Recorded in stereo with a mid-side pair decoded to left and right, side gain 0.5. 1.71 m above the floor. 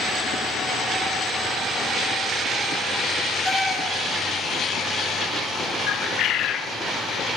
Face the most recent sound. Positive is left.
turn(degrees=70)